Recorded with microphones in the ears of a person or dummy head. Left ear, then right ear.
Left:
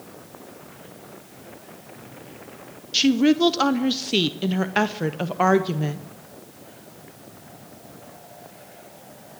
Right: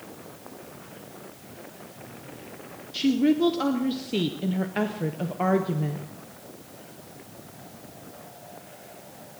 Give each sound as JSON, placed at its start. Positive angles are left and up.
{"t": 2.9, "sound": "a woman speaking", "side_deg": 35, "distance_m": 0.5}